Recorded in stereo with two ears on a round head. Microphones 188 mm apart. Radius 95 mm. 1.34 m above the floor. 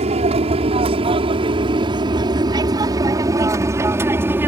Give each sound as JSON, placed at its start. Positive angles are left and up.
{"t": 0.0, "sound": "an aircraft", "side_deg": -30}